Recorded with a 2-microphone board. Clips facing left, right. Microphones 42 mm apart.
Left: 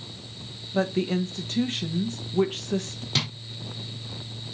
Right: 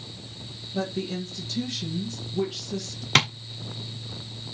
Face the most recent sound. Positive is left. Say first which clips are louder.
# right 8 dB
turn(degrees=-65)  # may be behind; listen again after turning